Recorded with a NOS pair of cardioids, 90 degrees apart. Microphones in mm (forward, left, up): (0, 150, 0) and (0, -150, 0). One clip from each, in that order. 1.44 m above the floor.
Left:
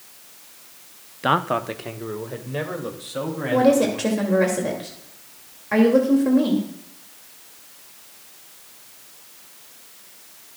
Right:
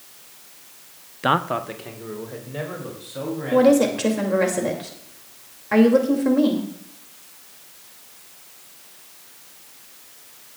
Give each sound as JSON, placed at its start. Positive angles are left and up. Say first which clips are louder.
{"t": 1.2, "sound": "a man speaking", "louder": "even", "azimuth_deg": -10, "distance_m": 0.6}
{"t": 3.5, "sound": "a woman speaking", "louder": "right 2 dB", "azimuth_deg": -10, "distance_m": 2.5}